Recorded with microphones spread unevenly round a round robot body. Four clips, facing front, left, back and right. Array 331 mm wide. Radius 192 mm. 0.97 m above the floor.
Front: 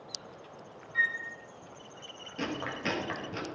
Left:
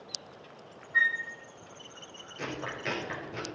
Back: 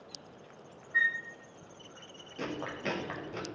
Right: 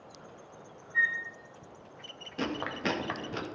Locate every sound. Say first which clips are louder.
0.9 s a flute: left 2 dB, back 1 dB; 175° left, 2.5 m
2.4 s chewing: right 4 dB, front 2 dB; 70° right, 2 m